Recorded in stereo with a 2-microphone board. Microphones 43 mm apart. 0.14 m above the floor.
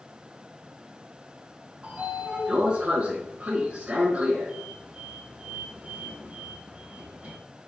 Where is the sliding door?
30° right (ahead or behind), 1.2 m.